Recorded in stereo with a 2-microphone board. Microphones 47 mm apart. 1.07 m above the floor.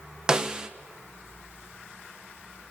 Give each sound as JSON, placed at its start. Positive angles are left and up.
{"t": 0.3, "sound": "a snare drum", "side_deg": -15, "distance_m": 0.7}